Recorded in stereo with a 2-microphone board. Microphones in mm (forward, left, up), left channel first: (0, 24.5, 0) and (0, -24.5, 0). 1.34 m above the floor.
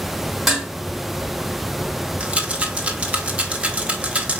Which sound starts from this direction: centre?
Dishes clattering, at 0.5 s.